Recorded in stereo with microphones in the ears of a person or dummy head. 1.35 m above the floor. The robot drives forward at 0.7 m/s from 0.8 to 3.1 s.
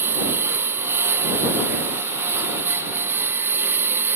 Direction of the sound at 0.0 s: 15° right (ahead or behind).